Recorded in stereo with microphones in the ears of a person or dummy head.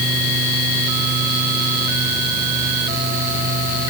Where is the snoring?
No snoring in this recording.